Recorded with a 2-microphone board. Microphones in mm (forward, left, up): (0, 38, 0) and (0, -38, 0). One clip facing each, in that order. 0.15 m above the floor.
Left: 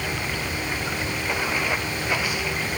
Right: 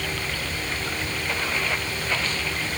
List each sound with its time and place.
0.0 s running water: 10° left (ahead or behind)